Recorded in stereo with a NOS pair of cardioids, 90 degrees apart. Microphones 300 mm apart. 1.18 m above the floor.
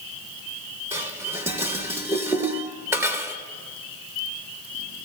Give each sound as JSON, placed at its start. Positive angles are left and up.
{"t": 0.9, "sound": "dishes clattering", "azimuth_deg": -10, "distance_m": 1.2}